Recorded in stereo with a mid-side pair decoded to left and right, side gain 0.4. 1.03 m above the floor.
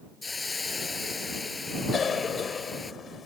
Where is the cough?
50° left.